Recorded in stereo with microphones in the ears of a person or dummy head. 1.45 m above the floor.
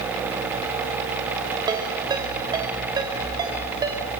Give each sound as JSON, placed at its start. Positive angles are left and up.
{"t": 1.7, "sound": "a ringtone", "side_deg": -25, "distance_m": 3.0}